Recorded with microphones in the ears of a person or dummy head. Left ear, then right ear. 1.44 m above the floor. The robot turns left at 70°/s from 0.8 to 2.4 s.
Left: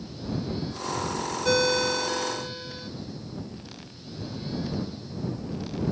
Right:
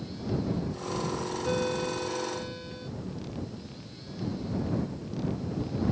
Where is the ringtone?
90° left; by 2.9 s 20° left.